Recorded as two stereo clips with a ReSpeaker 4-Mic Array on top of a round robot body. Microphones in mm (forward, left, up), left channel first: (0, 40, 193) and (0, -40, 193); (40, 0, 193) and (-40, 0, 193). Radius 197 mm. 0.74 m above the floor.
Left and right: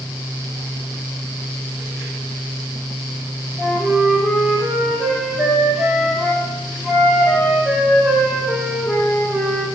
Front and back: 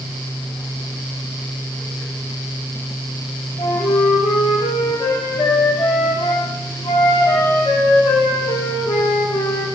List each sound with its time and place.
3.6 s a flute: 5° right, 0.8 m